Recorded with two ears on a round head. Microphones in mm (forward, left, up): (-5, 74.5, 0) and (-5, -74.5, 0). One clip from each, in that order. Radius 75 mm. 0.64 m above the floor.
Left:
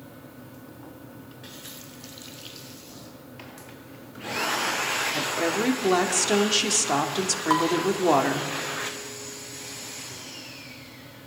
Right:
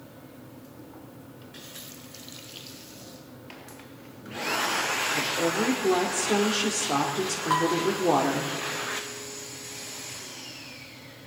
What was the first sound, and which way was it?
A woman speaking, 55° left (ahead or behind).